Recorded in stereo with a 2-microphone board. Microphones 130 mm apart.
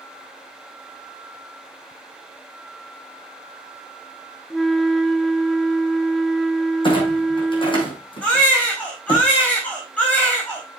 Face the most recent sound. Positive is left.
turn(degrees=10)  # may be behind; listen again after turning